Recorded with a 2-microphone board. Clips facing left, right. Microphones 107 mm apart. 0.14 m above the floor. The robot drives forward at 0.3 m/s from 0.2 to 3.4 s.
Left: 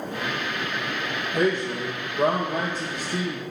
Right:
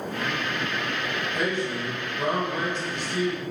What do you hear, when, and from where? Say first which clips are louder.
1.3 s a man speaking: left 6 dB; 40° left (ahead or behind), 3.5 m; by 3.4 s 35° left (ahead or behind), 4 m